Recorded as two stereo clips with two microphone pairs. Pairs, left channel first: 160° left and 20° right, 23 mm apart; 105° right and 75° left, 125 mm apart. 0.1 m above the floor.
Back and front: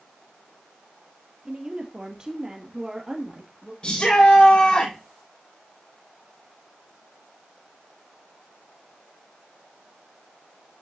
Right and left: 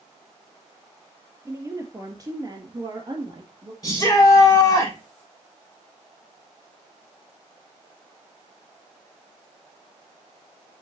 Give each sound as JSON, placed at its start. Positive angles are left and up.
{"t": 1.4, "sound": "a woman speaking", "azimuth_deg": 15, "distance_m": 2.0}
{"t": 3.8, "sound": "a shout", "azimuth_deg": -165, "distance_m": 6.5}